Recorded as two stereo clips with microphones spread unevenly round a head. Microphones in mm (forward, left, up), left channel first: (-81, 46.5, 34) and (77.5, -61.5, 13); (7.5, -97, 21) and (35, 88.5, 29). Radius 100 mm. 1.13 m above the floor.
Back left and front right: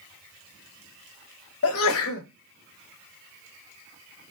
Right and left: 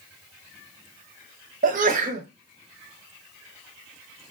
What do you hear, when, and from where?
1.6 s a sneeze: 135° left, 0.8 m